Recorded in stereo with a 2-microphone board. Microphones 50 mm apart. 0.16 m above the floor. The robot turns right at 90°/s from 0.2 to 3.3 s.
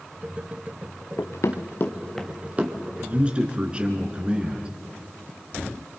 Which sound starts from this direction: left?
Running footsteps, at 1.2 s.